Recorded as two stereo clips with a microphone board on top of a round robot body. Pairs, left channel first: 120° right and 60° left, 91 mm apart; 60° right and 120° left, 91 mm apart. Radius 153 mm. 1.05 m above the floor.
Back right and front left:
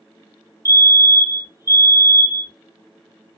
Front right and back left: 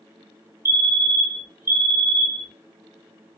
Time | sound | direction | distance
0.7 | a fire alarm | 80° left | 1.1 m